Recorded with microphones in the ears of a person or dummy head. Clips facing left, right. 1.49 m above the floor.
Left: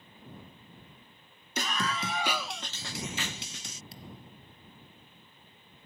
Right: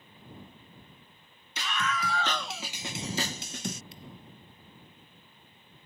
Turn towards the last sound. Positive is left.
turn(degrees=35)  # may be behind; listen again after turning